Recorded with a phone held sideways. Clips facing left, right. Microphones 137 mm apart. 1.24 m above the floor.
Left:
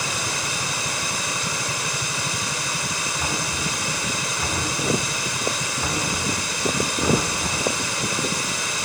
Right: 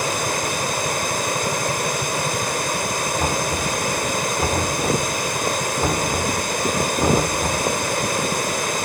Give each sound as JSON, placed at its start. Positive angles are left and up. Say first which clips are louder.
{"t": 0.0, "sound": "running water", "louder": "right 6 dB", "side_deg": -50, "distance_m": 1.9}
{"t": 3.2, "sound": "knocking", "louder": "right 4 dB", "side_deg": -45, "distance_m": 4.0}